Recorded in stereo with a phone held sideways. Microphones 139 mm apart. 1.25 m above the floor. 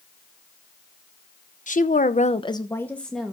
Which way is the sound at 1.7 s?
65° left (ahead or behind).